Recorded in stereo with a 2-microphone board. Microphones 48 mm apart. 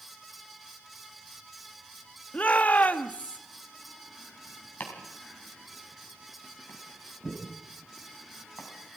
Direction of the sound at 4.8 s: 45° left (ahead or behind).